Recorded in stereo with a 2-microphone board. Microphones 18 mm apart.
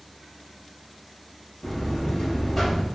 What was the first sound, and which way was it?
A buzzer, 35° left (ahead or behind).